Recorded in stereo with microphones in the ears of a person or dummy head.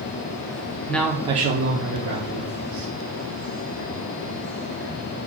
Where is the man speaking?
15° left (ahead or behind), 0.5 m; by 2.9 s 70° right (ahead or behind), 1.4 m.